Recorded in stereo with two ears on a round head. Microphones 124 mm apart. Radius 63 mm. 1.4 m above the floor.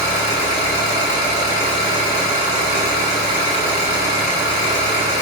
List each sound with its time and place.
0.0 s an engine running: 55° left (ahead or behind), 1.9 m